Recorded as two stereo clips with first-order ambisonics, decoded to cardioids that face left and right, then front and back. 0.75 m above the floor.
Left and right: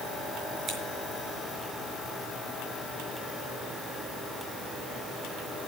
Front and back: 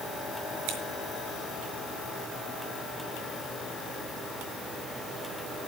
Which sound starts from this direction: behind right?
Scissors, at 0.7 s.